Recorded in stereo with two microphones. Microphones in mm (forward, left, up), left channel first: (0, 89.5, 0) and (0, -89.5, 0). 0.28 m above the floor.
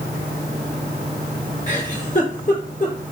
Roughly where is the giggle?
Left.